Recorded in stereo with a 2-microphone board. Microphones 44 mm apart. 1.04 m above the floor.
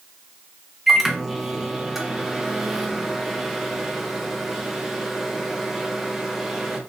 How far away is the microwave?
About 0.5 m.